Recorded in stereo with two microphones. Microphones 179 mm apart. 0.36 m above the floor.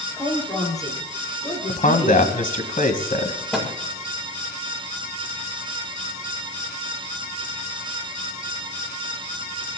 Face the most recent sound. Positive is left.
turn(degrees=5)  # may be behind; listen again after turning